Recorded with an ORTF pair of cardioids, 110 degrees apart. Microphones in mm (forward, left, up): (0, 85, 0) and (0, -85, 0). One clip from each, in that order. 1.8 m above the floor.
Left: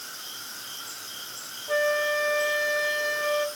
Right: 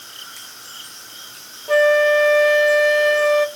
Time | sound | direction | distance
1.7 | a flute | 40° right | 0.7 m